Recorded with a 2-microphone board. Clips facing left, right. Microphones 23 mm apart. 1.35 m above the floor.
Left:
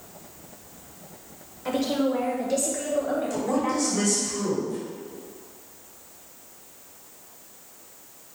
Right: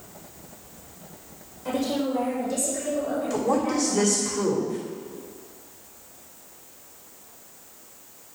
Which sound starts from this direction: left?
A woman speaking, at 1.6 s.